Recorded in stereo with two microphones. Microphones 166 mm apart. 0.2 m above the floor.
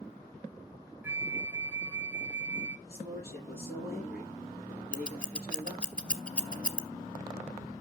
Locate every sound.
1.0 s a flute: 10° right (ahead or behind), 0.6 m
2.9 s a man speaking: 75° left (ahead or behind), 6 m
4.9 s scissors: 10° left (ahead or behind), 0.8 m